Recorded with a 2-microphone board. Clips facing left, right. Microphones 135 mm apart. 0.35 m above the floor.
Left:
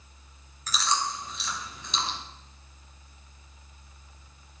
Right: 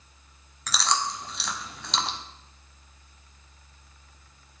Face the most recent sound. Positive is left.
turn(degrees=-75)  # may be behind; listen again after turning